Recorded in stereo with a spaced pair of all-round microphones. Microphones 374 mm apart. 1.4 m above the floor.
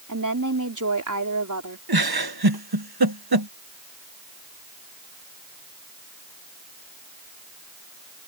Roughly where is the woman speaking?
Right.